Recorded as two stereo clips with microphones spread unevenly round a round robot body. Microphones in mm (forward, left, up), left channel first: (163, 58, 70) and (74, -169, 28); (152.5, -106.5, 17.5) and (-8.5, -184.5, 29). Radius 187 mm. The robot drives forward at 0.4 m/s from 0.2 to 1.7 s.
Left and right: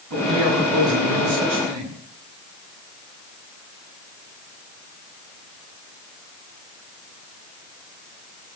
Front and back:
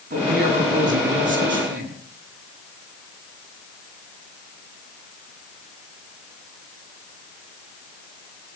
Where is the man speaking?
145° right, 7.5 m.